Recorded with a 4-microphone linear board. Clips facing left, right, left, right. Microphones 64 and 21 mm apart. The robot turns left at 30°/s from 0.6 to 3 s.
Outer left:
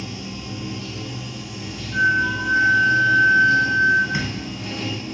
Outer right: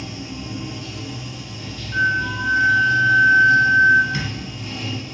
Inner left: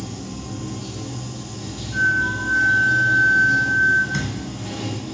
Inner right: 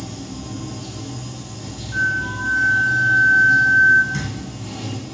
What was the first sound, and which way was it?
Running water, 160° right.